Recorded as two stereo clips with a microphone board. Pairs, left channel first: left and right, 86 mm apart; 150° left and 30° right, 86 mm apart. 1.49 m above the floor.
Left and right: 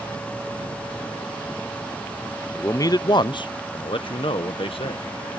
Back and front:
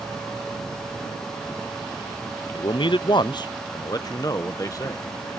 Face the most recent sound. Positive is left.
turn(degrees=100)